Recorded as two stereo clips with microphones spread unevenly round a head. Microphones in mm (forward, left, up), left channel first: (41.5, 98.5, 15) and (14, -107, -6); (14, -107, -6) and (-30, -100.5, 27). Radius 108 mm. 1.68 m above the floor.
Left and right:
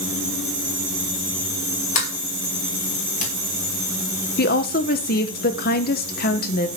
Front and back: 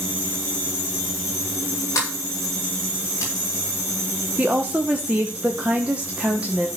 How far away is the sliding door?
About 4 m.